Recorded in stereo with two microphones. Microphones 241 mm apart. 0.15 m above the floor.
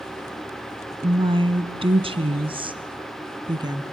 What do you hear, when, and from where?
1.0 s a woman speaking: 20° right (ahead or behind), 1.1 m; by 3.8 s 15° right (ahead or behind), 2 m